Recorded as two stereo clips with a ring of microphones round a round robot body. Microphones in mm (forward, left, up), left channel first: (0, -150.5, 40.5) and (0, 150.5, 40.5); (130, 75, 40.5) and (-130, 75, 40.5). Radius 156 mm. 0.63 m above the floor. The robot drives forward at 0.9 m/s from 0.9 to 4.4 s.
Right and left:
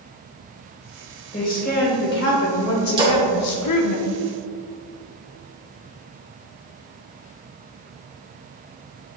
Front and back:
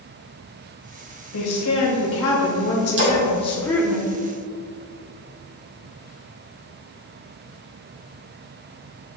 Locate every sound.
1.3 s a woman speaking: 25° right, 2.5 m; by 4.0 s 95° right, 1.3 m
3.0 s a splash: 160° left, 2.5 m; by 3.2 s 165° left, 2.5 m